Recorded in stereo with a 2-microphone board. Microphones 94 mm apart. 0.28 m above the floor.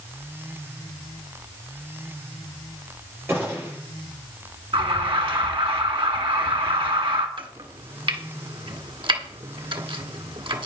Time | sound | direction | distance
3.3 | a gunshot | 25° right (ahead or behind) | 7 m
4.7 | an alarm | 70° right (ahead or behind) | 2 m
7.4 | chopping | 65° right (ahead or behind) | 1.5 m